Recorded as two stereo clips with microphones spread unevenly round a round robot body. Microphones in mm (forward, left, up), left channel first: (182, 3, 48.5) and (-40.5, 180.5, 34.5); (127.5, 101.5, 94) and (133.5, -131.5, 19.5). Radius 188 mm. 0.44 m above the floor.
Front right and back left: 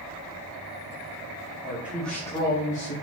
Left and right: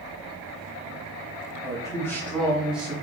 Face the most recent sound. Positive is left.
turn(degrees=-50)